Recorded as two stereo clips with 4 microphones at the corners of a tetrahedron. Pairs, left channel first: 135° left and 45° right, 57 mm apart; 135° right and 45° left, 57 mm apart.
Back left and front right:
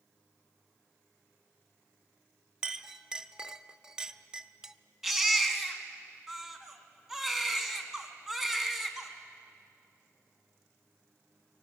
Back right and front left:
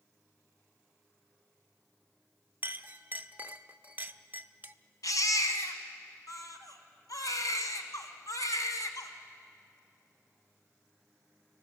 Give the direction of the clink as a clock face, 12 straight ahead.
11 o'clock.